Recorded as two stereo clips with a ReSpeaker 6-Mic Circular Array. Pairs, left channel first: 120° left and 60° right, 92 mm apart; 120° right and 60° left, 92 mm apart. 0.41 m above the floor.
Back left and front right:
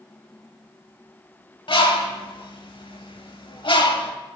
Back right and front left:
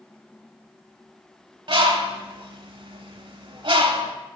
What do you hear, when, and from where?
1.7 s a bird: 90° left, 0.8 m